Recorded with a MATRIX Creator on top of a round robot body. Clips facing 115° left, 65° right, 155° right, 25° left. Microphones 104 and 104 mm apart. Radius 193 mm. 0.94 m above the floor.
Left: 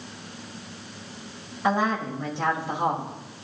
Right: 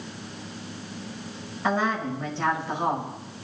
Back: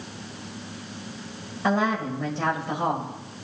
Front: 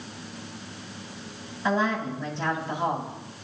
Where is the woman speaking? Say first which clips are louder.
Left 1 dB, back 2 dB; 170° right, 6.5 m.